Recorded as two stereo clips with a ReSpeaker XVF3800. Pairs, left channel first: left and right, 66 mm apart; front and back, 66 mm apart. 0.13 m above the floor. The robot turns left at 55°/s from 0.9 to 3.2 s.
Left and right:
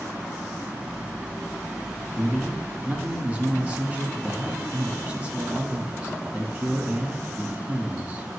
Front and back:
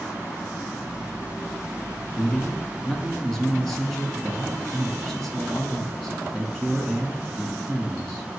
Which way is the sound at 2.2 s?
20° right.